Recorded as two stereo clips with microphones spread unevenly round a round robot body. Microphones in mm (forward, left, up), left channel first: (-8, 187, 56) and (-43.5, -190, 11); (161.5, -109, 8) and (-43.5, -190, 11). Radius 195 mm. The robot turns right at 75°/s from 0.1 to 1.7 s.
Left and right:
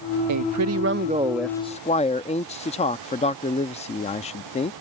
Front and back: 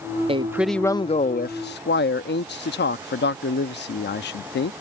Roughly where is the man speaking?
Right.